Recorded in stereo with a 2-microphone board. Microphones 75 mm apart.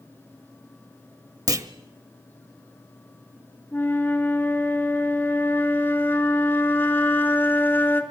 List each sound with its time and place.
1.5 s a clunk: 50° right (ahead or behind), 0.8 m
3.7 s a flute: 30° left (ahead or behind), 1.4 m